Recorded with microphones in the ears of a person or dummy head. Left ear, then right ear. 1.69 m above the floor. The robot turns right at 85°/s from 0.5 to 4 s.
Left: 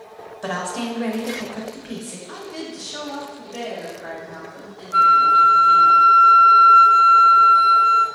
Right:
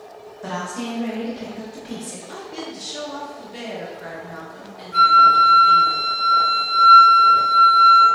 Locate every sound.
0.4 s a woman speaking: 30° left, 0.6 m; by 2.2 s 175° left, 0.6 m
2.3 s a woman speaking: 60° left, 1.1 m; by 5.9 s 150° right, 1.1 m
4.9 s a flute: 5° right (ahead or behind), 1.1 m